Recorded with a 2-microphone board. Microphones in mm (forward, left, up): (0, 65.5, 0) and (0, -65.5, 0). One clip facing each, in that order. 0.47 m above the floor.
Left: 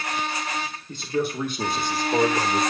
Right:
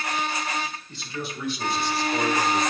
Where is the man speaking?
45° left (ahead or behind), 1.6 m; by 2.6 s 30° left (ahead or behind), 1.3 m.